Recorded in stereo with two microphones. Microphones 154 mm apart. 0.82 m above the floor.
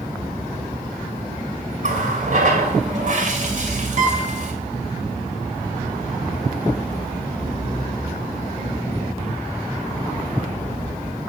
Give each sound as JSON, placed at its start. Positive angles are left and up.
{"t": 1.8, "sound": "a running tap", "side_deg": -55, "distance_m": 2.5}
{"t": 4.0, "sound": "a guitar", "side_deg": -55, "distance_m": 4.5}